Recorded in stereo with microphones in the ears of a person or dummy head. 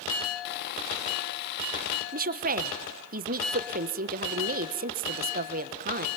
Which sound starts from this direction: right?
A woman speaking, at 2.1 s.